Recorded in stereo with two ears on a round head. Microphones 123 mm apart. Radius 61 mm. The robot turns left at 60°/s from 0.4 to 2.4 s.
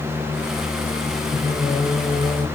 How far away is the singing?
About 1.5 m.